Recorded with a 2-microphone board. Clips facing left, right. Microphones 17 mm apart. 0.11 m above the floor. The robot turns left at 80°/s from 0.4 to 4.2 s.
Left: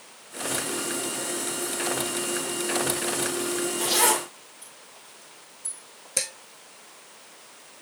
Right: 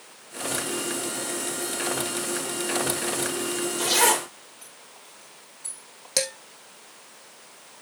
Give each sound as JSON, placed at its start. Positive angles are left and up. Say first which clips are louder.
{"t": 3.8, "sound": "a zipper", "louder": "right 2 dB", "side_deg": -35, "distance_m": 6.5}
{"t": 6.2, "sound": "dishes clattering", "louder": "right 4 dB", "side_deg": -65, "distance_m": 3.0}